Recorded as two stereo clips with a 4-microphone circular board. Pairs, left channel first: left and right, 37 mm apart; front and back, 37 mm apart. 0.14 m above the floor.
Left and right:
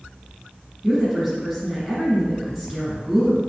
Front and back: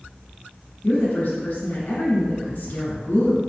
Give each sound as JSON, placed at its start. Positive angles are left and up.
{"t": 0.8, "sound": "a woman speaking", "azimuth_deg": -20, "distance_m": 1.5}